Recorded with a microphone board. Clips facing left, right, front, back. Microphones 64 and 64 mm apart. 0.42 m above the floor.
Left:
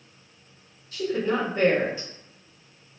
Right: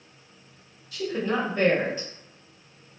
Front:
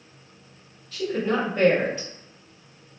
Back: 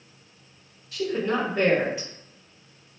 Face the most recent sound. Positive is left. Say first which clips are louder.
# left 2 dB, front 1 dB
turn(degrees=105)